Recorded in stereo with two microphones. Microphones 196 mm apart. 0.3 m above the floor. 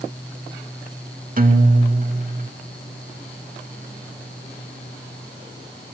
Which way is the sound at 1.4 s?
45° right (ahead or behind).